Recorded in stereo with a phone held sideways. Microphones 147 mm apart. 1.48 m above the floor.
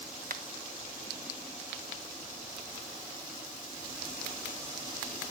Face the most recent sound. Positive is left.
turn(degrees=-65)  # may be behind; listen again after turning